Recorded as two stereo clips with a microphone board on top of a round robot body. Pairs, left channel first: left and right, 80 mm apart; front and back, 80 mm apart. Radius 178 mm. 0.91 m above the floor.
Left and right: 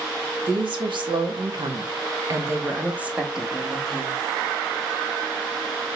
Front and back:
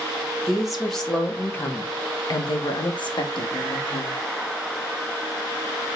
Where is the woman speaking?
95° right, 1.6 m; by 4.2 s 5° left, 2.0 m.